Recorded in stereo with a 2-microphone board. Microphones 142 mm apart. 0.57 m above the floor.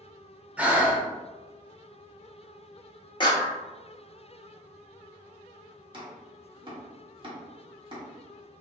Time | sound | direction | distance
0.6 | breathing | 10° right (ahead or behind) | 0.7 m
3.2 | a clap | 30° left (ahead or behind) | 0.7 m
5.9 | chopping | 35° right (ahead or behind) | 0.9 m